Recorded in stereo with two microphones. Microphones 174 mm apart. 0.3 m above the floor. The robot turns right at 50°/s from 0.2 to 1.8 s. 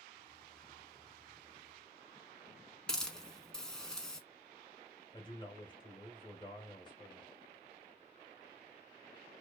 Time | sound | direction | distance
2.9 | a hiss | 5° left (ahead or behind) | 0.7 m
5.1 | a man speaking | 25° left (ahead or behind) | 1.0 m